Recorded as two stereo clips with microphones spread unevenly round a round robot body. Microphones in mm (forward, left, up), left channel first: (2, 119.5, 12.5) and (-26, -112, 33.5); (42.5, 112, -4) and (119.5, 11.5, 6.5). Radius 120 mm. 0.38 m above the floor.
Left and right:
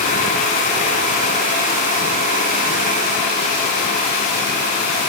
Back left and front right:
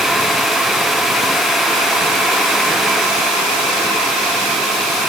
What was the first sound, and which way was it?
Only background noise.